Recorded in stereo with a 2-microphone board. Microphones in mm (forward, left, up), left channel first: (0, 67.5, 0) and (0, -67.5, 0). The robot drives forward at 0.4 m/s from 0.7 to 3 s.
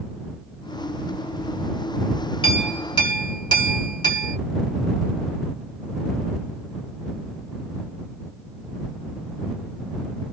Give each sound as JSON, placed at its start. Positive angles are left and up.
{"t": 2.4, "sound": "a clink", "side_deg": 35, "distance_m": 1.9}